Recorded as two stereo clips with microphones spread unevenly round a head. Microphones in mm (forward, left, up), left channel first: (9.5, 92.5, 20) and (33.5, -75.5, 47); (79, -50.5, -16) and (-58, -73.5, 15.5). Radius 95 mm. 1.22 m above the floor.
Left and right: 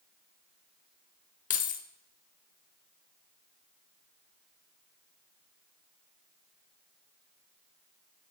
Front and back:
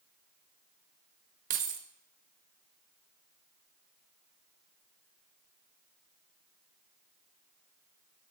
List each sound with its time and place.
1.5 s keys jangling: 150° left, 0.8 m